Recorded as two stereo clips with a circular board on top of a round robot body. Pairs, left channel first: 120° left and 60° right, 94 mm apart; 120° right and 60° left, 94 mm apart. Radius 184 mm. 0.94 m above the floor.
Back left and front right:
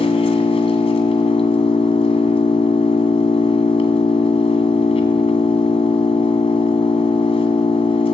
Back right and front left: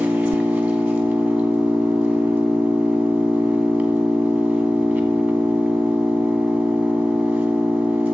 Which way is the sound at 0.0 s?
140° left.